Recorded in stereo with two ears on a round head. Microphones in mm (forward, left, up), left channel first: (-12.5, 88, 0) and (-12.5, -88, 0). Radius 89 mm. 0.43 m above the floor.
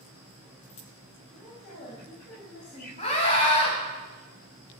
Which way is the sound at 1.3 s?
55° left (ahead or behind).